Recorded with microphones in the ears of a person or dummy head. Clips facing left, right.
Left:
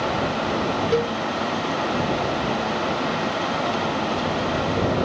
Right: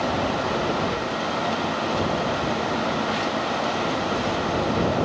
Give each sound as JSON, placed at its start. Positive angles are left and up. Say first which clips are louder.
{"t": 0.9, "sound": "a cowbell", "louder": "left 6 dB", "side_deg": 55}